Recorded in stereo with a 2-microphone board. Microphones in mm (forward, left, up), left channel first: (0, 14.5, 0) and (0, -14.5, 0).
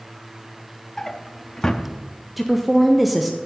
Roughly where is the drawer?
Left.